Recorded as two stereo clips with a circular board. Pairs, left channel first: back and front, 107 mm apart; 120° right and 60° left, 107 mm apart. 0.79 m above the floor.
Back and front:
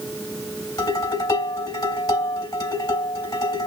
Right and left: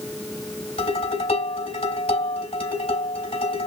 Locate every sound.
0.8 s dishes clattering: 125° right, 3 m